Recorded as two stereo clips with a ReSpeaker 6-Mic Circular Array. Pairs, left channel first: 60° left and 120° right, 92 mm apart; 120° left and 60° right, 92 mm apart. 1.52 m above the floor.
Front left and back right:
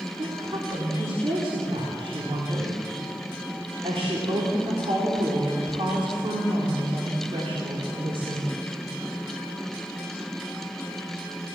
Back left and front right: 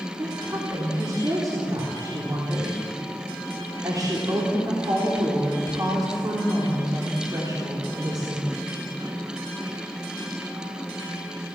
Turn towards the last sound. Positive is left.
turn(degrees=-105)